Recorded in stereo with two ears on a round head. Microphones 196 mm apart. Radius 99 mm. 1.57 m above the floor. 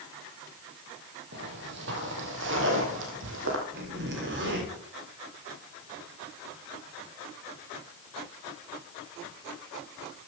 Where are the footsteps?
55° right (ahead or behind), 2.5 m; by 3.6 s 60° right (ahead or behind), 3 m.